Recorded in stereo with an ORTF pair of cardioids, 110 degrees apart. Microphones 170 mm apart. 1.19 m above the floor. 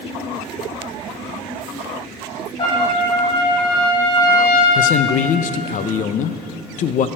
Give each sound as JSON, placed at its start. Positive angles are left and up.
{"t": 2.6, "sound": "a trumpet", "azimuth_deg": 30, "distance_m": 3.0}
{"t": 4.8, "sound": "a man speaking", "azimuth_deg": 50, "distance_m": 0.6}